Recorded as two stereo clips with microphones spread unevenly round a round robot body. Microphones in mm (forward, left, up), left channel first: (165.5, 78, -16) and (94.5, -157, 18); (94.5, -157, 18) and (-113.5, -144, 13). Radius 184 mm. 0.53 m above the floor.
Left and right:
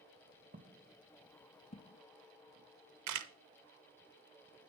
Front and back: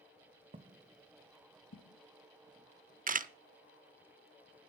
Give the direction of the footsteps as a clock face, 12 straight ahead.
4 o'clock.